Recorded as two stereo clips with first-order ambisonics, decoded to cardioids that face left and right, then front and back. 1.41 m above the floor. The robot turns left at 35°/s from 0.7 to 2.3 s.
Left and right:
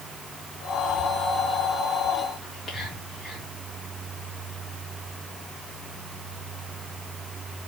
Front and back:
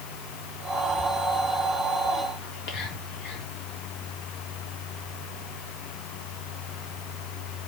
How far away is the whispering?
About 2 m.